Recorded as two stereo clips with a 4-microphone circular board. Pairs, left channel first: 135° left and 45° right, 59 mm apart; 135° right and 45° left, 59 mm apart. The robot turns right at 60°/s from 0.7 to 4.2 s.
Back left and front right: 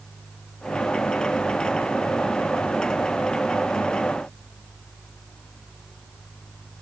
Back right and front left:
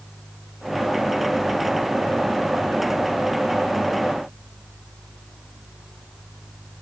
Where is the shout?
No shout in this recording.